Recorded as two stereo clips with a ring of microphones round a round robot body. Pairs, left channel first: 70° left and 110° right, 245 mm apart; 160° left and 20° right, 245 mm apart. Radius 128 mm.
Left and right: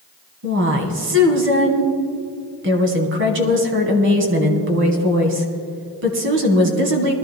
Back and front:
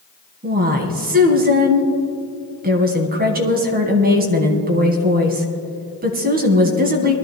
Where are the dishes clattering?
No dishes clattering in this recording.